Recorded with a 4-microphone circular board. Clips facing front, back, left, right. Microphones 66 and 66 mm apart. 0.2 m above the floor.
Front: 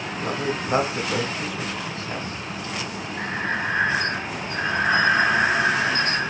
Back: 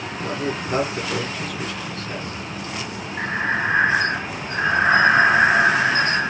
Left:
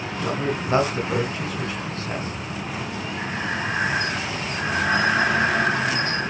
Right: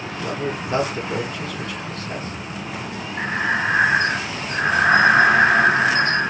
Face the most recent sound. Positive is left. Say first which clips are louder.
# back 4 dB, right 7 dB
turn(degrees=-120)